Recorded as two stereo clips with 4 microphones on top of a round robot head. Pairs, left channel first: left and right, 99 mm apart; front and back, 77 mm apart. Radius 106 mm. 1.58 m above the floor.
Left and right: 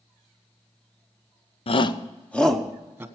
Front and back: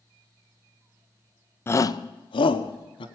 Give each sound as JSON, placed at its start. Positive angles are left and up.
{"t": 1.7, "sound": "a shout", "azimuth_deg": 60, "distance_m": 0.8}